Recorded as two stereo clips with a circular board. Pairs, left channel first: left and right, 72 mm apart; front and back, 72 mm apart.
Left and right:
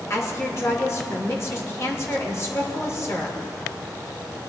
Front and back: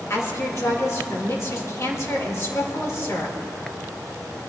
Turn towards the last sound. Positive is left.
turn(degrees=45)